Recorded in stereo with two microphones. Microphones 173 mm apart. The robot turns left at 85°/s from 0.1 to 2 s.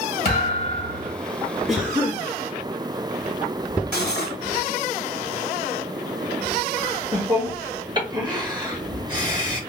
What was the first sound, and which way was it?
A thud, 75° left.